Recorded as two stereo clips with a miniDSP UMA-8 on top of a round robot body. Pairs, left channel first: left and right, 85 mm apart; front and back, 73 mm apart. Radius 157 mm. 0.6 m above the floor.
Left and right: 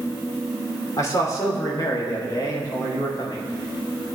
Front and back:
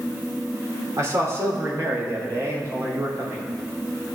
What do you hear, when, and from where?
1.0 s a man speaking: 140° left, 2.5 m; by 3.4 s 130° left, 4.5 m